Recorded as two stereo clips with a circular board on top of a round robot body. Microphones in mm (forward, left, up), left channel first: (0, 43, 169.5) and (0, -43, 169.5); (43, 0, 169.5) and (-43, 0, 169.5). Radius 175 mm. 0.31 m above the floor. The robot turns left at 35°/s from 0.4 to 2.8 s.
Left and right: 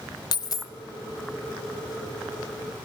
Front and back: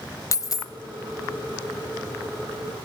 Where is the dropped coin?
50° left, 0.8 m; by 0.7 s 40° left, 0.8 m.